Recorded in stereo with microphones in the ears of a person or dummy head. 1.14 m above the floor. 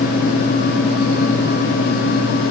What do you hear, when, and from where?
Only background noise.